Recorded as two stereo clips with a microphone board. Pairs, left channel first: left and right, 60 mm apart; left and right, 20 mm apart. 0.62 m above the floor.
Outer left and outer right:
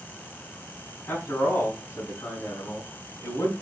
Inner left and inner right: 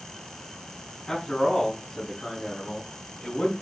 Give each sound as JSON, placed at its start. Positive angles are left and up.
{"t": 1.1, "sound": "a man speaking", "side_deg": 30, "distance_m": 3.5}